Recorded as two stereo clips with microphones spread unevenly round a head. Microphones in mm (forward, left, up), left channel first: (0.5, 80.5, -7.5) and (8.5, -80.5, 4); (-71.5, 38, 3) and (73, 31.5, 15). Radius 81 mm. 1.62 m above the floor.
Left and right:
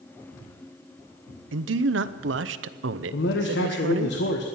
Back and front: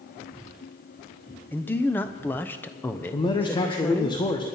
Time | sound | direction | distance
1.5 | a man speaking | 105° right | 0.7 m
3.1 | a man speaking | 115° left | 1.2 m